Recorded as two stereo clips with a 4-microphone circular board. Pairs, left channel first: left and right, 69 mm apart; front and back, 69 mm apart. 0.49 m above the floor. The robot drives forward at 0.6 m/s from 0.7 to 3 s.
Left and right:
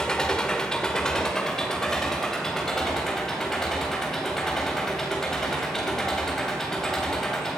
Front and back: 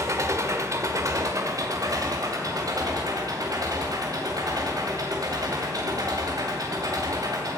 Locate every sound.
0.0 s an engine running: 170° left, 1.5 m; by 7.6 s 175° left, 2.5 m